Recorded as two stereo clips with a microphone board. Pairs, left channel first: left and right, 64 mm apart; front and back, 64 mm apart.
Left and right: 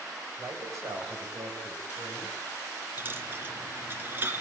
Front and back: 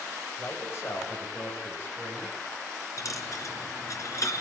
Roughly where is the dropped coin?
Ahead right.